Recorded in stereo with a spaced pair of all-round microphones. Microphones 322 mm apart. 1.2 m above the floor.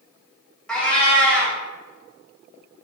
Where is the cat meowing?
5° left (ahead or behind), 0.9 m.